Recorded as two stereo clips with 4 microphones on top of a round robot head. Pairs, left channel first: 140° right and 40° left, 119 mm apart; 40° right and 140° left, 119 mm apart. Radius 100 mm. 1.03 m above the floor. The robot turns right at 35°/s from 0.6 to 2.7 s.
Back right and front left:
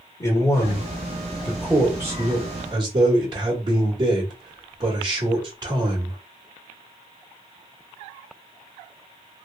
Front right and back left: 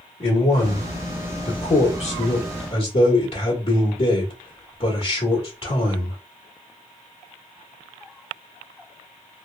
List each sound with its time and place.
0.2 s a man speaking: 85° right, 1.2 m; by 6.2 s 10° right, 1.2 m